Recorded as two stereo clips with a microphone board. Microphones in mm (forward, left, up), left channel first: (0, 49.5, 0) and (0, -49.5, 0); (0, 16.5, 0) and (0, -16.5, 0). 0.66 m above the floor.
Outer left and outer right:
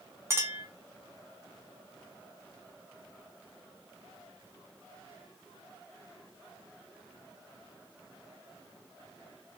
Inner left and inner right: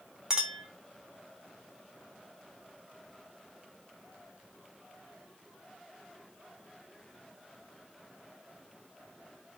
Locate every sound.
0.3 s a clink: 25° right (ahead or behind), 1.1 m